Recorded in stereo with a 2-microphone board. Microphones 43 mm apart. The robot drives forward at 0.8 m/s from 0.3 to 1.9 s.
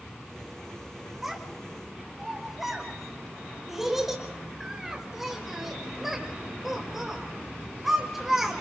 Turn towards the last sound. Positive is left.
turn(degrees=-5)  # may be behind; listen again after turning